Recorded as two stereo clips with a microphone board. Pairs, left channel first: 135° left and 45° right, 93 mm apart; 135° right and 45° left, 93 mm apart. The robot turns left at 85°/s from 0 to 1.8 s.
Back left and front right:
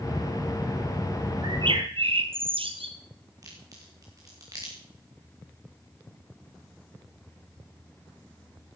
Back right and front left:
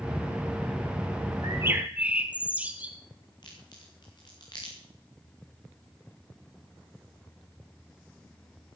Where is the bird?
Straight ahead, 1.6 m; by 3.0 s 30° right, 1.6 m.